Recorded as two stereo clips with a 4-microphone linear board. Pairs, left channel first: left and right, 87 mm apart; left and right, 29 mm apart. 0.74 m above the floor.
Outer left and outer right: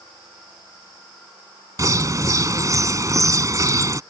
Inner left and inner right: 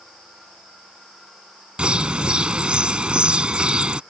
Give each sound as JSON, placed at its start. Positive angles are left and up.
{"t": 1.8, "sound": "a bird", "side_deg": -40}